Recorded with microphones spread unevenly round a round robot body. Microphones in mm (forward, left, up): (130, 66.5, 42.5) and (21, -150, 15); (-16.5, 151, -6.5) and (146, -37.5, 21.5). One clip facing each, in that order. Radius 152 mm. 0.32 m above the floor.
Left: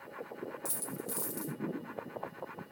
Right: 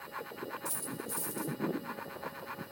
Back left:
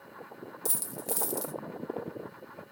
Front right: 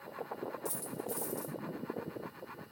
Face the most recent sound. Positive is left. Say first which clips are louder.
# even, back left 2 dB
turn(degrees=120)